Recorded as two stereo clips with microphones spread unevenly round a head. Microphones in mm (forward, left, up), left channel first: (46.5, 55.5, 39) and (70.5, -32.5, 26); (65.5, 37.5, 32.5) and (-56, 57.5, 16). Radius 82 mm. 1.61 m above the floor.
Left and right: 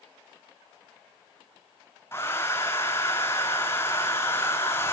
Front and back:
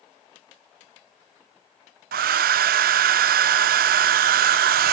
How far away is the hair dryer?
About 0.5 m.